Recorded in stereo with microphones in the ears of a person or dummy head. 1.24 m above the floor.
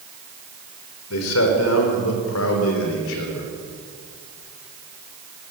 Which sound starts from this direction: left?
A man speaking, at 1.1 s.